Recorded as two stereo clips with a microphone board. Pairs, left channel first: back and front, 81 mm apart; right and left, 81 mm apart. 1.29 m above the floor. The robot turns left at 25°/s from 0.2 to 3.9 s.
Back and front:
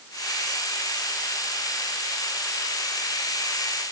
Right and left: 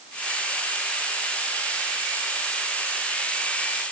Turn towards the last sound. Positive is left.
No sound to turn to.